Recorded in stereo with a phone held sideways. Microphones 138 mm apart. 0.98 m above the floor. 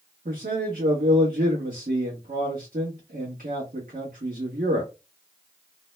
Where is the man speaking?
80° right, 1.1 m.